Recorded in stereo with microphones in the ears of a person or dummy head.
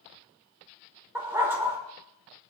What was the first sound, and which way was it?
A dog barking, 10° right (ahead or behind).